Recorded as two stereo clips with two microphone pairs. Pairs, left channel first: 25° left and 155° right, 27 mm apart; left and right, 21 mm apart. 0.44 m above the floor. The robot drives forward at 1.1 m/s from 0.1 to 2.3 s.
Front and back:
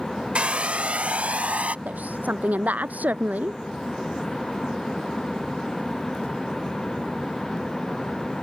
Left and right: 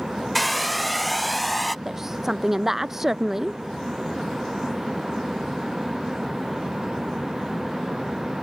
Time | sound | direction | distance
0.3 | a hair dryer | straight behind | ?
1.9 | a woman speaking | 160° right | ?